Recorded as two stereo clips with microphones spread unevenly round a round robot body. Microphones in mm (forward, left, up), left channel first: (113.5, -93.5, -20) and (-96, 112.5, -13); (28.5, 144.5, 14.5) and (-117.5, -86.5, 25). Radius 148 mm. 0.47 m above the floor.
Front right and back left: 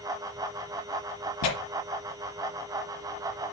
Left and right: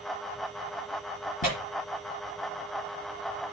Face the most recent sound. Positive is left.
turn(degrees=-10)